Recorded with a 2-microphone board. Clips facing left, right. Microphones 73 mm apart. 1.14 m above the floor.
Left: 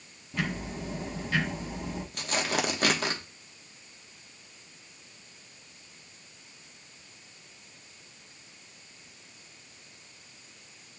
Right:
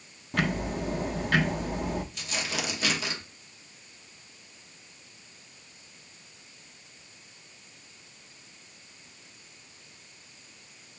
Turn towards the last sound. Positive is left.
turn(degrees=50)  # may be behind; listen again after turning